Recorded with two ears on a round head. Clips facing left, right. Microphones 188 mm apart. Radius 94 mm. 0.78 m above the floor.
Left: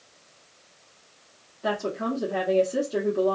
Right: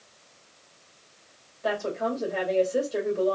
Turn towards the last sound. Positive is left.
turn(degrees=65)  # may be behind; listen again after turning